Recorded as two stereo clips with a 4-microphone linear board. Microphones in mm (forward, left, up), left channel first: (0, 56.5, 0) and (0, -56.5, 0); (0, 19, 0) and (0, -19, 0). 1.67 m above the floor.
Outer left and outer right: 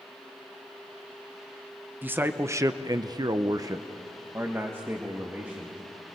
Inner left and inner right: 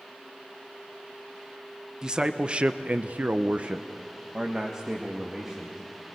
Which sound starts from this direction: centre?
A man speaking, at 2.0 s.